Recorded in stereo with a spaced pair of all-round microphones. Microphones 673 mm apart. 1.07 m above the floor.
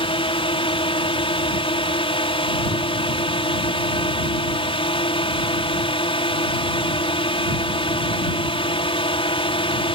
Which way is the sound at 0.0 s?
10° left (ahead or behind).